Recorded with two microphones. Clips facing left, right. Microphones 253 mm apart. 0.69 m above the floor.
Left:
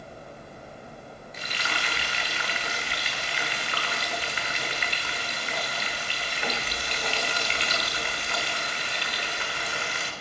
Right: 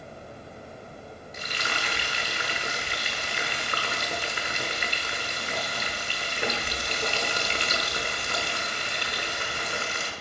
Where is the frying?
50° right (ahead or behind), 1.1 m.